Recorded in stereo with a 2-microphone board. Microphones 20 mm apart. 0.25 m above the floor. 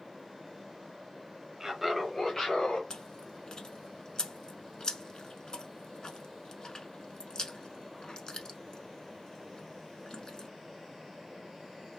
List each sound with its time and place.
1.6 s laughter: 20° right (ahead or behind), 1.2 m; by 2.8 s 50° left (ahead or behind), 1.6 m
2.9 s chewing: 35° left (ahead or behind), 0.7 m